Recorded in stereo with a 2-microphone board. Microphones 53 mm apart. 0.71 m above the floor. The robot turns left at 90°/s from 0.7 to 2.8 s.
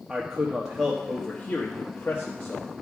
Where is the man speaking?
5° right (ahead or behind), 1.0 m; by 2.7 s 5° left (ahead or behind), 1.0 m.